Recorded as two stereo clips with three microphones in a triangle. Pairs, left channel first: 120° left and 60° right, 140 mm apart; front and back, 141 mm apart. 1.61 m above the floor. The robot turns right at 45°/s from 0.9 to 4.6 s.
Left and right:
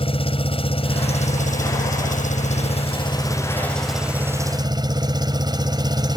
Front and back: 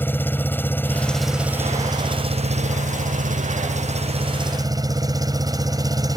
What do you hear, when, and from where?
0.0 s an engine running: 75° left; by 6.2 s 120° right